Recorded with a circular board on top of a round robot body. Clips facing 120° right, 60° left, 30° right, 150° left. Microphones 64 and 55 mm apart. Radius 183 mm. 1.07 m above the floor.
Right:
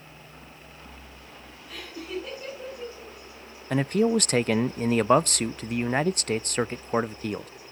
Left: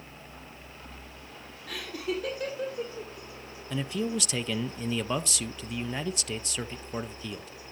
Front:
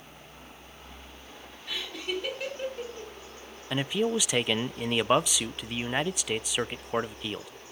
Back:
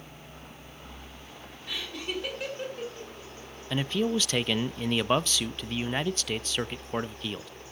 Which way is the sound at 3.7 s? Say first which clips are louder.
Right 8 dB, even; 105° right.